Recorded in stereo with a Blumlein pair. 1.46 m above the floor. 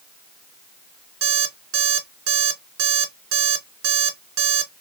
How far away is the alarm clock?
About 2.0 m.